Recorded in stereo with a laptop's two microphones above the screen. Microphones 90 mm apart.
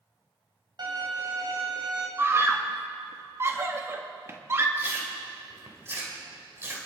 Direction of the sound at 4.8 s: 25° right (ahead or behind).